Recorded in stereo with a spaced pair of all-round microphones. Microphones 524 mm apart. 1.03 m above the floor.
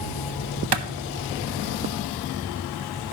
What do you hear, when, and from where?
0.7 s a clap: 50° right (ahead or behind), 0.8 m